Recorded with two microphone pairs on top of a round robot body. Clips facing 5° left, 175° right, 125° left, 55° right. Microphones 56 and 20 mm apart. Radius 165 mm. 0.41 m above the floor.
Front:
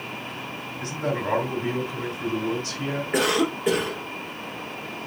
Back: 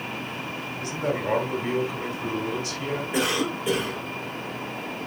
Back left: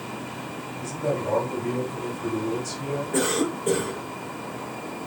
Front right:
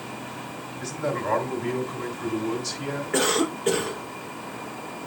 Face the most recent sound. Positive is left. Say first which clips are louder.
# front 4 dB, front right 2 dB
turn(degrees=-30)